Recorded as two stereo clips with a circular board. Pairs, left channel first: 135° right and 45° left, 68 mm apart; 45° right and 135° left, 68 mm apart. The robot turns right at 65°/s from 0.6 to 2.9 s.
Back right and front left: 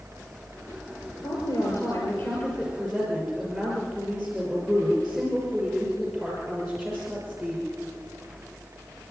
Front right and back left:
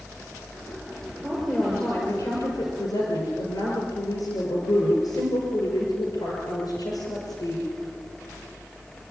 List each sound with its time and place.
1.2 s a woman speaking: 160° right, 6 m; by 7.7 s 50° right, 6 m